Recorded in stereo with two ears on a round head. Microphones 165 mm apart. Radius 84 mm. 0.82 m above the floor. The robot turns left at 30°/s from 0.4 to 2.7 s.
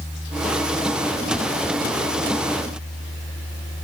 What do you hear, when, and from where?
Only background noise.